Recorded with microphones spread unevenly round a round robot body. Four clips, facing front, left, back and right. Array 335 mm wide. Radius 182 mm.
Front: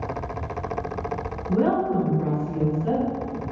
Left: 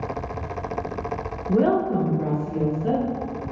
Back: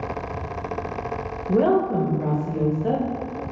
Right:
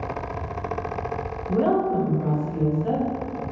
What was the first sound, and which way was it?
A woman speaking, 135° left.